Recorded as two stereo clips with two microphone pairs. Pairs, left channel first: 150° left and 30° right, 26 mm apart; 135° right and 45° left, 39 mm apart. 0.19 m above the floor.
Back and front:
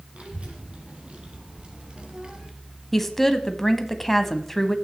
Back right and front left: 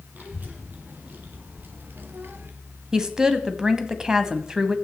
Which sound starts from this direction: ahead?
A child speaking, at 0.1 s.